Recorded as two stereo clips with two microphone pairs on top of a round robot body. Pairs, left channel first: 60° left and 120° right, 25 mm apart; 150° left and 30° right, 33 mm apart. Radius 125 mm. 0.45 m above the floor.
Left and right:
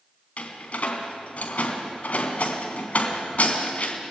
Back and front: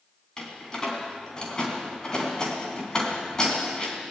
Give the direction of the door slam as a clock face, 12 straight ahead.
9 o'clock.